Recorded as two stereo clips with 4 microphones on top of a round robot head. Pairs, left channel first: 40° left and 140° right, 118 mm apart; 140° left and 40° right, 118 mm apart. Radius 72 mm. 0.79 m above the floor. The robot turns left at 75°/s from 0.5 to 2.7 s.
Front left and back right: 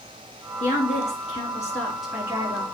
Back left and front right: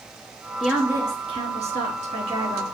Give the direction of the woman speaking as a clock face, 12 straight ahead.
10 o'clock.